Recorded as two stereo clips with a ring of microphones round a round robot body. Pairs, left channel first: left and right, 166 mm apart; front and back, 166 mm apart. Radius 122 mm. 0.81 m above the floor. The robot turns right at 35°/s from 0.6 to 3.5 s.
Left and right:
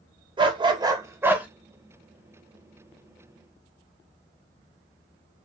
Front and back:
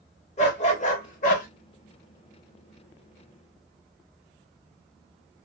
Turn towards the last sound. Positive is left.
turn(degrees=60)